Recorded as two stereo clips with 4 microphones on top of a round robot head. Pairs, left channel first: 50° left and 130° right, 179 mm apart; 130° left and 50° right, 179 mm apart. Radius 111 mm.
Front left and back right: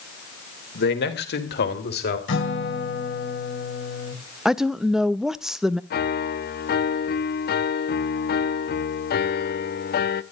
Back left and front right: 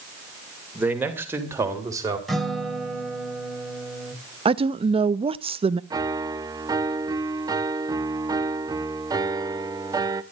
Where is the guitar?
40° left, 3.5 m.